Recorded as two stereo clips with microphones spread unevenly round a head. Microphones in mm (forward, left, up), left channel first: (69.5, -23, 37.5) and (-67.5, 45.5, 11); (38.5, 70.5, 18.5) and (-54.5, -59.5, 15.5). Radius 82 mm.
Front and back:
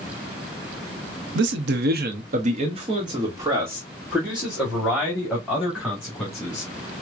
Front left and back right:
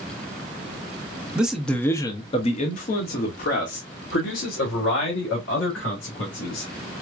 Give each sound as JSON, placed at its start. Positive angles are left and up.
{"t": 1.4, "sound": "a man speaking", "azimuth_deg": 150, "distance_m": 0.8}